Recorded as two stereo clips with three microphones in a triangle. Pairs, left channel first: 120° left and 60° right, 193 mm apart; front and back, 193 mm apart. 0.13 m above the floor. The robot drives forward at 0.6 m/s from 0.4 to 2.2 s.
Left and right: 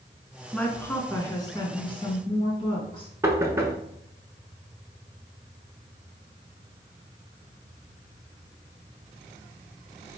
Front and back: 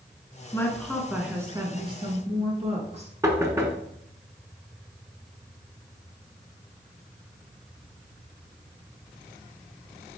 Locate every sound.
0.5 s a woman speaking: 45° left, 1.1 m; by 3.1 s 160° left, 1.3 m
3.2 s knocking: 120° right, 0.9 m